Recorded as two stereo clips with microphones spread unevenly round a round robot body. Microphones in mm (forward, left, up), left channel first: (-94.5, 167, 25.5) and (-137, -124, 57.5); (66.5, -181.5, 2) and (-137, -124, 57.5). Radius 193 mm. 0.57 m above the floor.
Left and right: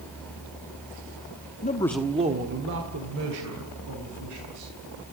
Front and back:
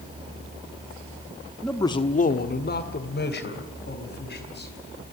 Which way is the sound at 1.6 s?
55° left.